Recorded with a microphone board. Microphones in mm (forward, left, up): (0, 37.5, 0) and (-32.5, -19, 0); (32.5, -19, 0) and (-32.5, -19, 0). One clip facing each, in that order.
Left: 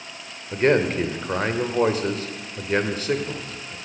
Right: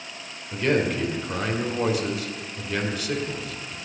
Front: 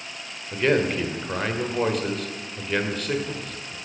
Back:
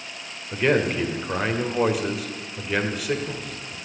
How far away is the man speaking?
About 1.6 m.